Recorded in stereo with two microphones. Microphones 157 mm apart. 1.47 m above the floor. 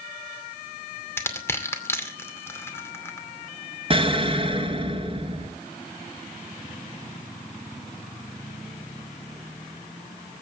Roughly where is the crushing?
Centre.